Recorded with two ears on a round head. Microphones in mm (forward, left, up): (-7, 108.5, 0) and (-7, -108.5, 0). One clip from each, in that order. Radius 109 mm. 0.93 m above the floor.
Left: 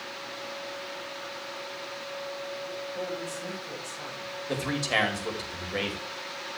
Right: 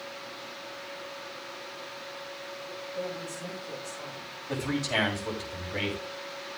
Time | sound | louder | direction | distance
3.0 | a woman speaking | right 1 dB | 75° left (ahead or behind) | 5.5 m
4.5 | a man speaking | left 2 dB | 80° left | 5.5 m